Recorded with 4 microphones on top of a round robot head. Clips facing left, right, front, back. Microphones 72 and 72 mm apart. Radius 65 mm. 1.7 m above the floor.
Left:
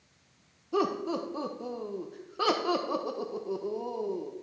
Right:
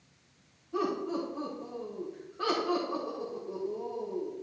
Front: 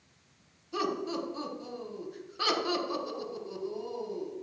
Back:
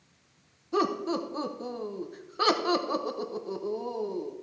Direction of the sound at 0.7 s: 135° left.